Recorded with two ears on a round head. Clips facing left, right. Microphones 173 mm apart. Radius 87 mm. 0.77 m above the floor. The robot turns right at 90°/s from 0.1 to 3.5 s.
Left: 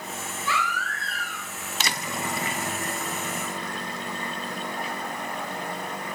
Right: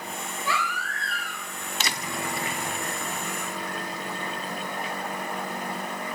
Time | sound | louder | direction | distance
0.5 | a baby crying | left 1 dB | 40° right | 3 m